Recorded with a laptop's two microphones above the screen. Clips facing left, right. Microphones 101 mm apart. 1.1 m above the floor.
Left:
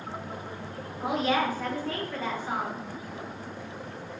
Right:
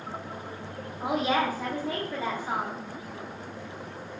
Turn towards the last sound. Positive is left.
turn(degrees=-15)  # may be behind; listen again after turning